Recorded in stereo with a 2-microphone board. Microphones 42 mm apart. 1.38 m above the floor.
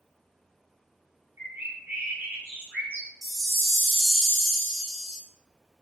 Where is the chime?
5° left (ahead or behind), 0.6 m.